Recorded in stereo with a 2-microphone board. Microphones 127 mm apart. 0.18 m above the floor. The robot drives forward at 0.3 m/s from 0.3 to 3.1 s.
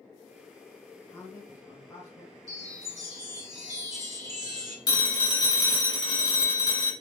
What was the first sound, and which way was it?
A man speaking, 25° left (ahead or behind).